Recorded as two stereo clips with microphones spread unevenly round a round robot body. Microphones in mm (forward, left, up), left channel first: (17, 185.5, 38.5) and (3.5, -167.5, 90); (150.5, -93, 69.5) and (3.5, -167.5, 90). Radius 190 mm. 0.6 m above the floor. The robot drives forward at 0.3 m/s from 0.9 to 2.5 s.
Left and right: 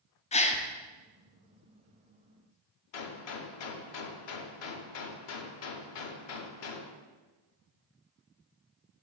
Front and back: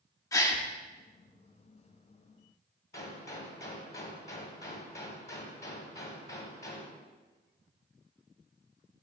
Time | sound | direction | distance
0.3 | a gasp | 55° left | 0.6 m
2.9 | a gunshot | 70° left | 0.6 m